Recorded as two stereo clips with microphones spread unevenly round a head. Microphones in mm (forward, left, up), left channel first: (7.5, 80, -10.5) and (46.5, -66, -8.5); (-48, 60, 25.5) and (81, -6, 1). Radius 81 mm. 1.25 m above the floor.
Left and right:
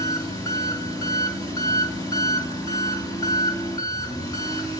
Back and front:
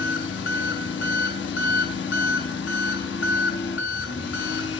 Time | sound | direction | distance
0.0 | an engine running | 175° left | 2.5 m